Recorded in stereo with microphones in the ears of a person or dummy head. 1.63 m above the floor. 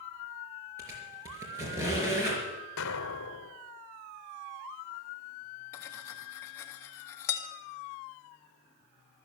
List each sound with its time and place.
0.8 s a squeak: 15° right (ahead or behind), 4 m
2.8 s an explosion: 65° left (ahead or behind), 0.8 m
5.7 s cutlery clinking: 15° left (ahead or behind), 1.3 m